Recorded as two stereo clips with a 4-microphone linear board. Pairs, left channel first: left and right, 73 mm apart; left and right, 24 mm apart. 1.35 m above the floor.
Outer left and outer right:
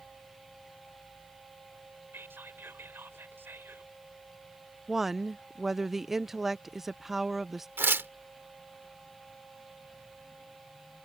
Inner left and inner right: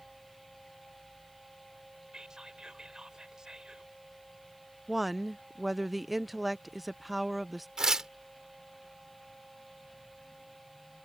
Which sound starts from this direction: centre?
A woman speaking, at 4.9 s.